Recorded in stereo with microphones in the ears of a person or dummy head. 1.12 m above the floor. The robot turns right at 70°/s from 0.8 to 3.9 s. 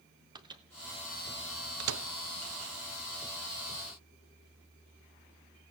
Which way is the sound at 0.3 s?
20° right (ahead or behind).